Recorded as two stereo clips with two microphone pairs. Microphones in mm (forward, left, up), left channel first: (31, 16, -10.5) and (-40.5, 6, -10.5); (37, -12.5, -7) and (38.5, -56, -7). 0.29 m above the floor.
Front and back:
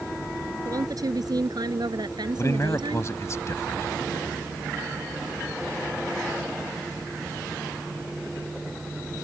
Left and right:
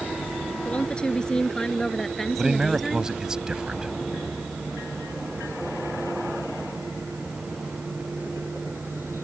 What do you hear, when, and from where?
0.7 s a woman speaking: 155° left; by 3.1 s 175° right
2.4 s a man speaking: 25° right